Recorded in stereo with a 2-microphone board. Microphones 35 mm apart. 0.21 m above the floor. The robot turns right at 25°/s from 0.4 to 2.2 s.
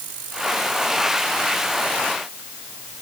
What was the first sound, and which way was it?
Only background noise.